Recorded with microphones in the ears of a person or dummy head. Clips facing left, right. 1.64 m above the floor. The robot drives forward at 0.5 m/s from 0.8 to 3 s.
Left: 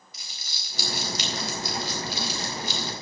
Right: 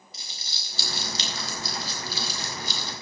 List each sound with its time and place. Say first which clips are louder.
0.1 s crumpling: right 2 dB; 30° right (ahead or behind), 4 m; by 2.9 s 40° right (ahead or behind), 3 m